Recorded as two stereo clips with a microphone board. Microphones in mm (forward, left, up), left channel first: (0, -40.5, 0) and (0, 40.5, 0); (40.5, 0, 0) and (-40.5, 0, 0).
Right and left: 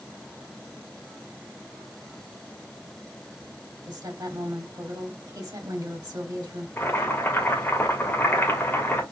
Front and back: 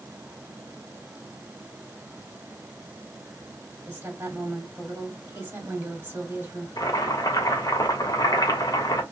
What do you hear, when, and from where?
3.9 s a woman speaking: 115° left, 1.9 m
6.8 s boiling: 35° right, 1.5 m